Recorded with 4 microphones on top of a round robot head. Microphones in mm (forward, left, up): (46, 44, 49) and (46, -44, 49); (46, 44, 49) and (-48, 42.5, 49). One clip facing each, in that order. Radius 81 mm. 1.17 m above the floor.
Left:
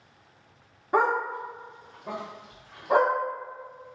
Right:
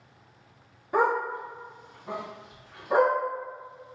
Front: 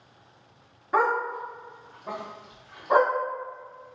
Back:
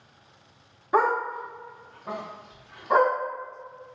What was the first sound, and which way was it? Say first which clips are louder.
A dog barking: left 1 dB, back 1 dB; 110° left.